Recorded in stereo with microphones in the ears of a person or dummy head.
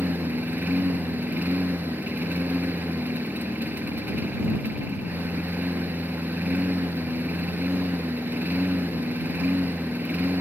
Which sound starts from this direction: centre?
A lawn mower, at 0.0 s.